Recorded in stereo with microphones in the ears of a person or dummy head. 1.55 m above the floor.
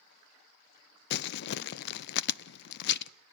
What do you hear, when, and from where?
1.1 s crumpling: 55° left (ahead or behind), 0.5 m